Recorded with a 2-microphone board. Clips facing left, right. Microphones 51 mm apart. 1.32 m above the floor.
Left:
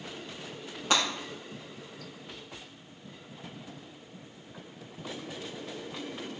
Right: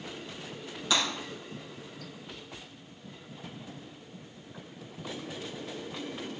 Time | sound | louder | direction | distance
0.9 | breaking glass | left 2 dB | 50° left (ahead or behind) | 4.5 m